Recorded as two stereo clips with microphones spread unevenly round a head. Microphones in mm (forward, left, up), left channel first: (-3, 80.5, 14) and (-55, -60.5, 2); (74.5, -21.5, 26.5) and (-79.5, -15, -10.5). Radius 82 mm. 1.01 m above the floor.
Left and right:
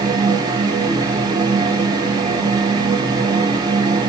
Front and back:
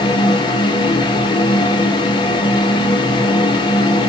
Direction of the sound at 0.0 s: 65° right.